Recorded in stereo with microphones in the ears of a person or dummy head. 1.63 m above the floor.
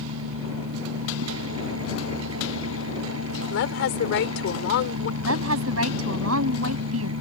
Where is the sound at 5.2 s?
80° right.